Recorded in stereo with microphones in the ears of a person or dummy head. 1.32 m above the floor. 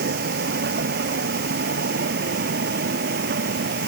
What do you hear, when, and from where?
0.0 s a vehicle: 60° right (ahead or behind); by 3.9 s 55° right (ahead or behind)